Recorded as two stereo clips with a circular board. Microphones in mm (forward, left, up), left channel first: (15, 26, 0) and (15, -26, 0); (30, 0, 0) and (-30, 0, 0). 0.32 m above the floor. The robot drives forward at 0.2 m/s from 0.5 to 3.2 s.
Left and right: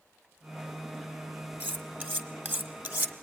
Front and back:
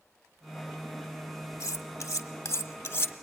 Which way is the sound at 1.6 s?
35° right.